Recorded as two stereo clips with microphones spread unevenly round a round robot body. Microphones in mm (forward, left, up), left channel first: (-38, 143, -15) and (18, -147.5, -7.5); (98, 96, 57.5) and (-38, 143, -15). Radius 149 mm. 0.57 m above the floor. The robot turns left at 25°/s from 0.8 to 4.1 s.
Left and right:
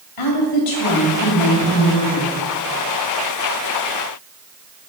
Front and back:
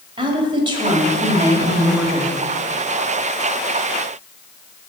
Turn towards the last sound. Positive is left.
turn(degrees=30)